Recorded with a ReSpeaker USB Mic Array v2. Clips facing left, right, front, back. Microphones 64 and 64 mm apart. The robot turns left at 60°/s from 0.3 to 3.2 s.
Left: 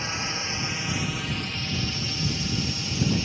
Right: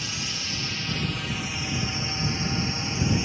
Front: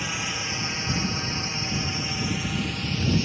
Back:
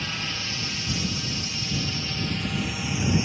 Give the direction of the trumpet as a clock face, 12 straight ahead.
I don't hear a trumpet.